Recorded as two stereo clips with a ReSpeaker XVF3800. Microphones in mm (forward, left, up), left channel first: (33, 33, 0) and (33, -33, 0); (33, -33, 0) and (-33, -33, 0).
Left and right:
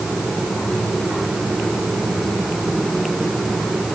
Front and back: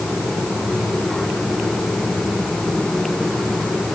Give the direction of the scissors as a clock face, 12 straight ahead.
I don't hear scissors.